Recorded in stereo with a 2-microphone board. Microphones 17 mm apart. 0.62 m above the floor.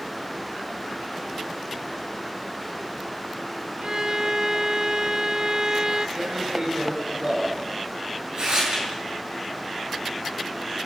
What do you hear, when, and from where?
3.8 s a violin: 45° right (ahead or behind), 1.3 m
6.2 s tearing paper: 50° right (ahead or behind), 8.5 m